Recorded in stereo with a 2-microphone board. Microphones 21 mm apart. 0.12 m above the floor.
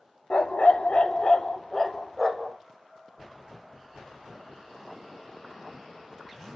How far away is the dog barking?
About 0.7 m.